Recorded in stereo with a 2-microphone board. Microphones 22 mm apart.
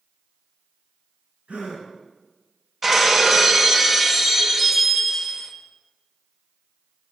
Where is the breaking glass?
15° right (ahead or behind), 0.5 m.